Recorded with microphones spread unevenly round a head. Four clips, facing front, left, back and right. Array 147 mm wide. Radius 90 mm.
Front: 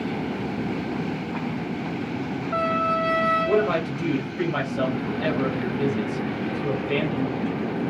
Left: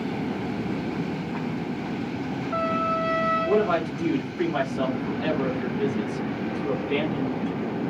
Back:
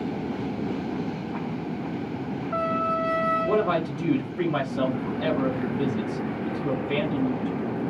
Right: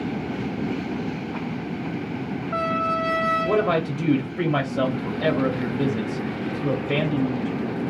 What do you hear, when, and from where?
3.5 s a man speaking: 95° right, 0.7 m